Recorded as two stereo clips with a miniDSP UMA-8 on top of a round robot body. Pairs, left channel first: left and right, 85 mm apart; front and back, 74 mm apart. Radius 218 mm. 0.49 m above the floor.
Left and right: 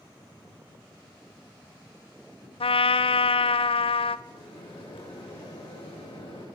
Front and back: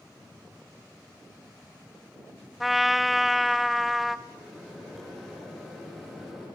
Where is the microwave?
90° left, 7.5 m.